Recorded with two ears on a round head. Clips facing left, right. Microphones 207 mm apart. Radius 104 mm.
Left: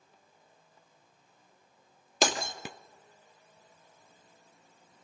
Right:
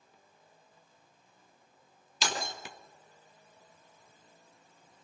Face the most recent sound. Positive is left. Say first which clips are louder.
# left 7 dB
turn(degrees=45)  # may be behind; listen again after turning